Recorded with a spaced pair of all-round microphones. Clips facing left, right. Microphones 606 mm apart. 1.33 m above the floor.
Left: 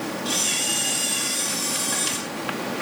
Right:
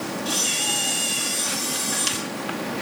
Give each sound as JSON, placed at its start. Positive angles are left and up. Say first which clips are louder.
{"t": 0.2, "sound": "a camera shutter", "louder": "even", "side_deg": 30, "distance_m": 5.0}